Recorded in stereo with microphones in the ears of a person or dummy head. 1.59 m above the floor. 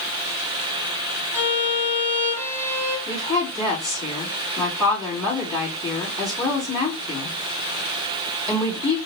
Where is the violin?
15° left (ahead or behind), 3.5 m.